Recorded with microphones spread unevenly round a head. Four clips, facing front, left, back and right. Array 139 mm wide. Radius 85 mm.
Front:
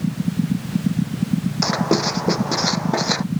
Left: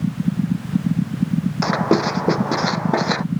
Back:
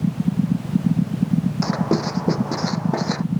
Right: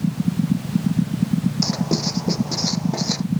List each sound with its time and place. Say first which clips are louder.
1.6 s writing: left 6 dB, front 1 dB; 60° left